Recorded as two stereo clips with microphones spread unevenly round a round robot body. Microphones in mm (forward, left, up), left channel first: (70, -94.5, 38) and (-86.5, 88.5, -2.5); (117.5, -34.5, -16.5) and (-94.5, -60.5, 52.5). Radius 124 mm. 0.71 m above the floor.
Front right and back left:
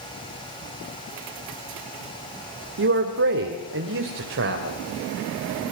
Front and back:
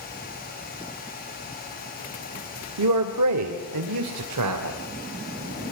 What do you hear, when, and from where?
2.8 s a man speaking: 165° left, 2 m